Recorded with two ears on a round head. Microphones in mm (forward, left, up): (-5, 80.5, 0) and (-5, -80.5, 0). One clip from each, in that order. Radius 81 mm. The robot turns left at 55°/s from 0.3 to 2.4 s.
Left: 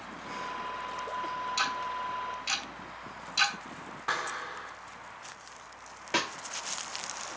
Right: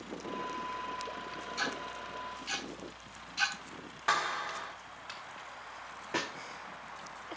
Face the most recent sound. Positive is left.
turn(degrees=75)  # may be behind; listen again after turning